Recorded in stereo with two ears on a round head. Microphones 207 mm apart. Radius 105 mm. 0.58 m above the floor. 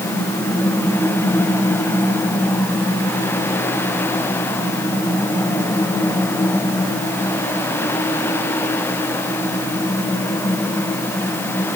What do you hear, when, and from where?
Only background noise.